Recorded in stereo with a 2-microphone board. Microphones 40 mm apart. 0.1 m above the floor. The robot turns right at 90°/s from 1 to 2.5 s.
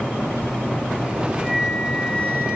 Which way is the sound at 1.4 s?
30° right.